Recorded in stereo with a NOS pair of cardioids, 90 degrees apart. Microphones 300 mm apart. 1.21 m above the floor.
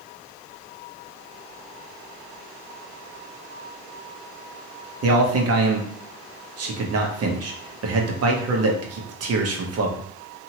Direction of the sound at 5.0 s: 55° right.